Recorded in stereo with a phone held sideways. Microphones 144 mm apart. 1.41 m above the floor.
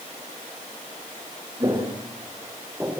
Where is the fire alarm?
No fire alarm in this recording.